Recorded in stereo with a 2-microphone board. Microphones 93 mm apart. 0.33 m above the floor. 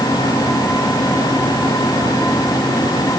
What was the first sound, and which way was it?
Only background noise.